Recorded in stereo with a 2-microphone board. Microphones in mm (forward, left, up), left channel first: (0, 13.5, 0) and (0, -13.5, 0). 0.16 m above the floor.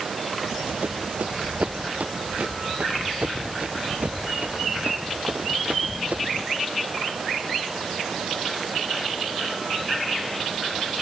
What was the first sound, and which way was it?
Running footsteps, 70° right (ahead or behind).